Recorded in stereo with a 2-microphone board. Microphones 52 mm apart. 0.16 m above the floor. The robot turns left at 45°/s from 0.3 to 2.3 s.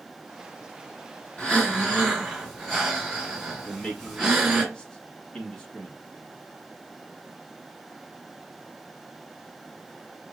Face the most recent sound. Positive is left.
turn(degrees=20)  # may be behind; listen again after turning